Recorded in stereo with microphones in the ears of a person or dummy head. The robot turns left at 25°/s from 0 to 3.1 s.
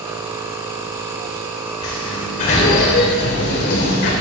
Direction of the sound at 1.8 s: 145° left.